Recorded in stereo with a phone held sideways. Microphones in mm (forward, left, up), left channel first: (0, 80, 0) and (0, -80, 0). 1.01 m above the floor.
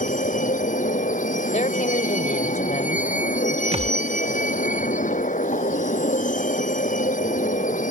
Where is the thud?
40° right (ahead or behind).